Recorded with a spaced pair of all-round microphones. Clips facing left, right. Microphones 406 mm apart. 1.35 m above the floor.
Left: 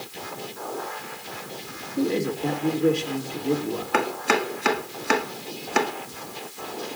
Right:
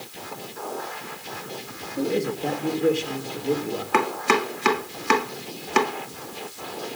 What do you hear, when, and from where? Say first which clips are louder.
2.0 s a man speaking: left 1 dB; 10° left (ahead or behind), 2.5 m
3.9 s chopping: right 2 dB; 15° right (ahead or behind), 0.8 m